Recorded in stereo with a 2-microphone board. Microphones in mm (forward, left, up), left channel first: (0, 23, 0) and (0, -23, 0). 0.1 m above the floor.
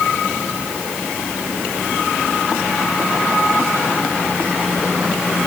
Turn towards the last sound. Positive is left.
No sound to turn to.